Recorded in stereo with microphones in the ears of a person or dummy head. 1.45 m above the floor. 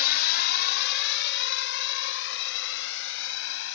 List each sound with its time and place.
0.0 s a drone: 50° left (ahead or behind); by 3.8 s 75° left (ahead or behind)